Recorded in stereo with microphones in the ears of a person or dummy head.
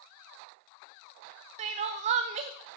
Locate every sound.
1.6 s crying: 35° right (ahead or behind), 0.6 m